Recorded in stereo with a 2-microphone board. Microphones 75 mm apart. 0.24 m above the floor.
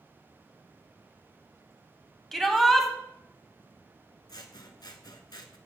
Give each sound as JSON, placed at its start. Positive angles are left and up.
{"t": 2.3, "sound": "a shout", "side_deg": 5, "distance_m": 1.2}
{"t": 4.3, "sound": "scissors", "side_deg": 75, "distance_m": 0.8}